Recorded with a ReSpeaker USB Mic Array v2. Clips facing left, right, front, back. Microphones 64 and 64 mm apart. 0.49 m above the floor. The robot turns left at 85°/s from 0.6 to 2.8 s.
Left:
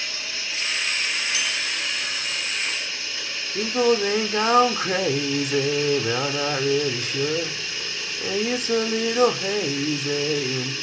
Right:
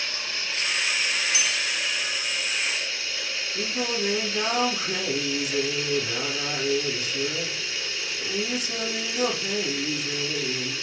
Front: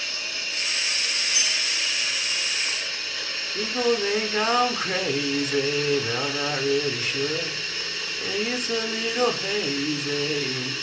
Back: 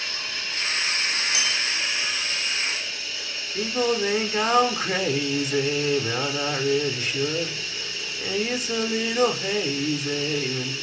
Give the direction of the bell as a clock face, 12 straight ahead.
6 o'clock.